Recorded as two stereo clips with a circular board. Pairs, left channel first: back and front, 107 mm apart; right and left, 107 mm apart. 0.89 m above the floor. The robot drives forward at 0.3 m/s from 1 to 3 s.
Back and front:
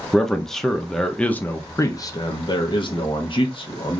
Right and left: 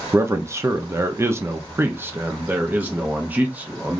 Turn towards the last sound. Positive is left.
turn(degrees=160)